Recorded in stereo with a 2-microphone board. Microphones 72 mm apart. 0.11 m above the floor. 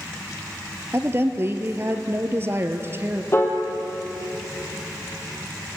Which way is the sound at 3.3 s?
35° left (ahead or behind).